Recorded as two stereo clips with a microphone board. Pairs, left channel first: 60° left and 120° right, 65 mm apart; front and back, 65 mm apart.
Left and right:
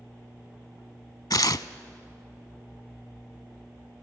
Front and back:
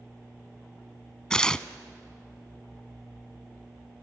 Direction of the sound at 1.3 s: 75° left.